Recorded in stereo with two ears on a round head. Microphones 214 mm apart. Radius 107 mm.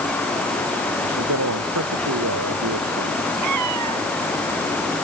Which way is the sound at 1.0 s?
70° right (ahead or behind).